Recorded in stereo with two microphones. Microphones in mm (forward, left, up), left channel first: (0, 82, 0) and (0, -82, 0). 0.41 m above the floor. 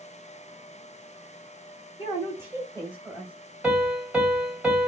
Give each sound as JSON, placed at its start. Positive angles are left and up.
{"t": 2.0, "sound": "a woman speaking", "side_deg": 30, "distance_m": 1.9}
{"t": 3.6, "sound": "a piano", "side_deg": -5, "distance_m": 1.6}